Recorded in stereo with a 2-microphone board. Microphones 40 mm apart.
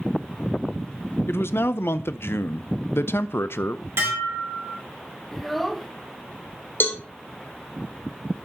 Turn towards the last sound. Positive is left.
turn(degrees=55)  # may be behind; listen again after turning